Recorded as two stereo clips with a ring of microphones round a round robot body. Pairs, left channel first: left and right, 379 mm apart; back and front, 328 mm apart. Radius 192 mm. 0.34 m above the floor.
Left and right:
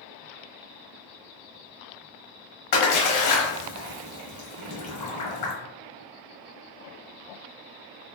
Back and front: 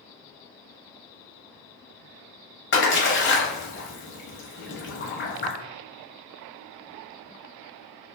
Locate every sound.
2.7 s a splash: 125° left, 0.9 m